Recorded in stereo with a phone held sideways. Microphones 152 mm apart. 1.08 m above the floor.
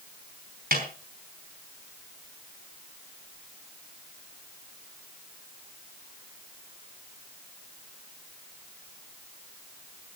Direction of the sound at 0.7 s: 80° right.